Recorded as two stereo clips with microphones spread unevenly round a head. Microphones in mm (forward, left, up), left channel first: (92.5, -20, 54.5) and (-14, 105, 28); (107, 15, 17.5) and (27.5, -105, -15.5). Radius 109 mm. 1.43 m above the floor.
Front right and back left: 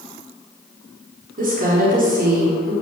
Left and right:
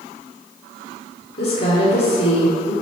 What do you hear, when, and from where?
1.4 s a woman speaking: 95° left, 5 m